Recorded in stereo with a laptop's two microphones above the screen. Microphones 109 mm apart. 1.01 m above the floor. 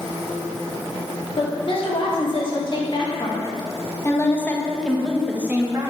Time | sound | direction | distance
1.4 | a woman speaking | 50° left (ahead or behind) | 2.5 m